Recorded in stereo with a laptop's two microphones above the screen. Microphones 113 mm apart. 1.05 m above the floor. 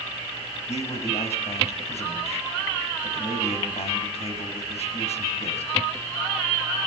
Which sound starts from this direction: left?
A man speaking, at 0.7 s.